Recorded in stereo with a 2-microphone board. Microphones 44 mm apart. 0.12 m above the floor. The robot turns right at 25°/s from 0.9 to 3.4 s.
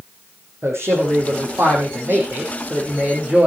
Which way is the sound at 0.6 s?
95° right.